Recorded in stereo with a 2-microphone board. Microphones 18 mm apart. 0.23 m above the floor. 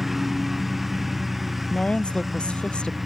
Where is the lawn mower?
10° right (ahead or behind).